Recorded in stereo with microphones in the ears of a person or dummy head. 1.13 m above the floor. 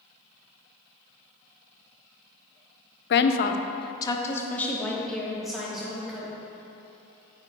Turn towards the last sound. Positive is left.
turn(degrees=-5)  # may be behind; listen again after turning